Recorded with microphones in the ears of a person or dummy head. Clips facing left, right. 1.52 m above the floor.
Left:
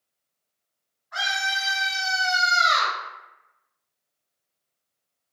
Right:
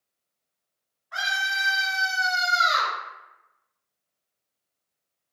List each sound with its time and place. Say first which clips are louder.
1.1 s a scream: left 2 dB; 40° right (ahead or behind), 0.7 m; by 3.0 s 30° right (ahead or behind), 0.9 m